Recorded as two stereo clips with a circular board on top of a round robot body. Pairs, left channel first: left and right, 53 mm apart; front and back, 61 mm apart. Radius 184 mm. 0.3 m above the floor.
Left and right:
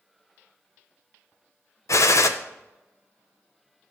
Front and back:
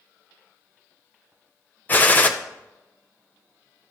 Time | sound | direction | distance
1.9 | a gunshot | 65° left | 0.7 m